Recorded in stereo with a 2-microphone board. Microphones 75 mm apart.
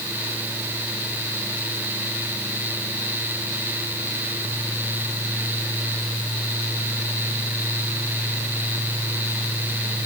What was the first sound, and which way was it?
Only background noise.